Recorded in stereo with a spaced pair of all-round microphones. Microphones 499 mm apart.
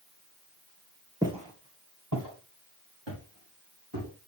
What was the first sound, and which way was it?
Footsteps, 5° right (ahead or behind).